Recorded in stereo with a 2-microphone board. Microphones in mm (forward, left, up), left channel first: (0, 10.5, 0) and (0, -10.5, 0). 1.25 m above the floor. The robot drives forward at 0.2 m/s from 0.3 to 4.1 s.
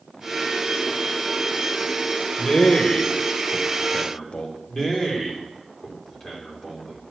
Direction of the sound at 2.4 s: 50° left (ahead or behind).